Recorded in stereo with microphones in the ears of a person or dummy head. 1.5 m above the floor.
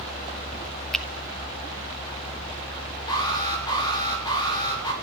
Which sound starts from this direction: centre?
A finger snap, at 0.9 s.